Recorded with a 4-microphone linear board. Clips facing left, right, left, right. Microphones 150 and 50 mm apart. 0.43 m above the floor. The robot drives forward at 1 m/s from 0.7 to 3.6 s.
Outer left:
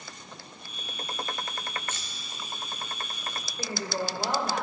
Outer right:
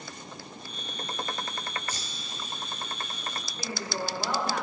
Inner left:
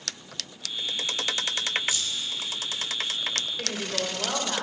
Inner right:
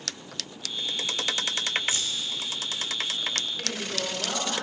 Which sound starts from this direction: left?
A woman speaking, at 3.6 s.